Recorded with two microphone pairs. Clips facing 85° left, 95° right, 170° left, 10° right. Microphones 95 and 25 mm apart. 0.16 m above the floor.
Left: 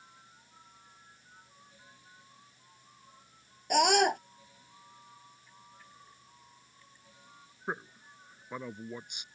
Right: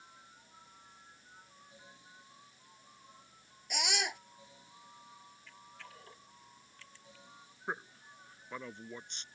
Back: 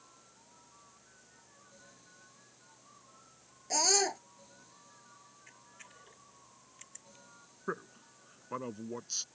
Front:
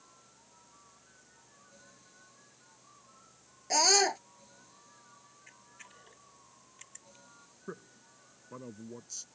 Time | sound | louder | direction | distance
3.7 | a scream | left 13 dB, front 4 dB | 50° left | ?
5.5 | a camera shutter | right 2 dB, front 2 dB | 100° right | ?
7.7 | a man speaking | left 3 dB, back 7 dB | 160° left | ?